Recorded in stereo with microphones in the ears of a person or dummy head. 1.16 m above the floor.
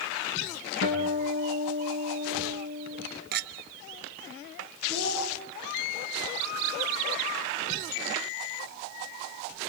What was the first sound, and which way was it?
A guitar, 65° left (ahead or behind).